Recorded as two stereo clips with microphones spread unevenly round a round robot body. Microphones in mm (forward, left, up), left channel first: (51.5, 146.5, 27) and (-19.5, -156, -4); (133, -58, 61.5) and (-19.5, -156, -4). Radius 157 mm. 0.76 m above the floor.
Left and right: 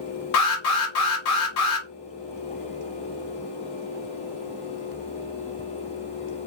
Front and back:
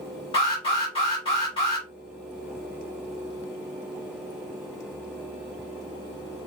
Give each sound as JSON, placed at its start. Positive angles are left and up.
{"t": 0.3, "sound": "an alarm", "azimuth_deg": 110, "distance_m": 1.2}